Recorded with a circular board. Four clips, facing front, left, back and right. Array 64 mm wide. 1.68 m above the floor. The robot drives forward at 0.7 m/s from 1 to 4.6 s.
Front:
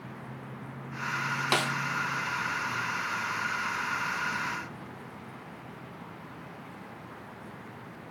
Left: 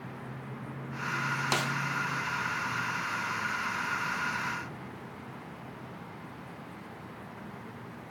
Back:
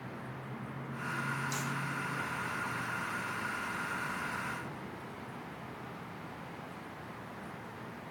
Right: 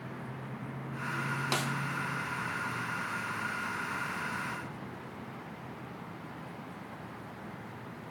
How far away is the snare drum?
About 0.8 m.